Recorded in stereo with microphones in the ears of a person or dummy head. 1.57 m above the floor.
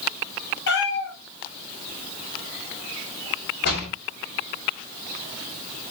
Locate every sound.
0.7 s a cat meowing: 70° left (ahead or behind), 4 m
3.6 s a door slam: 65° left (ahead or behind), 7.5 m